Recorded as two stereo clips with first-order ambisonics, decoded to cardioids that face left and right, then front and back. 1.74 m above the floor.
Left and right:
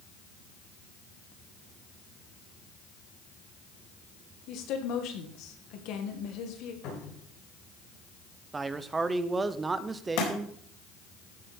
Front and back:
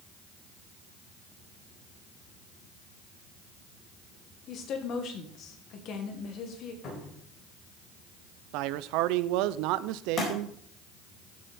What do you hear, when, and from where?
4.5 s a woman speaking: 50° left, 2.0 m
6.8 s a cupboard door: 55° left, 6 m
8.5 s a man speaking: 165° right, 0.6 m
10.2 s a thud: 65° left, 4 m